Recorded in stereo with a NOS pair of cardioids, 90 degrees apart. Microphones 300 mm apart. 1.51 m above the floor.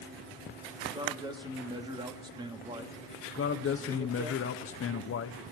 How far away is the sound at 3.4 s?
About 1.0 m.